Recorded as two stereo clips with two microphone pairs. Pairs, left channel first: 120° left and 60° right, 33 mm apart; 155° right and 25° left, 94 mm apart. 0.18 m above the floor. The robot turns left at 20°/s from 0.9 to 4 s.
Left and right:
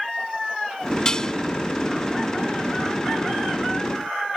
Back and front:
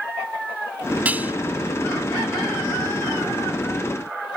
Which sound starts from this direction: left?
Dishes clattering, at 1.1 s.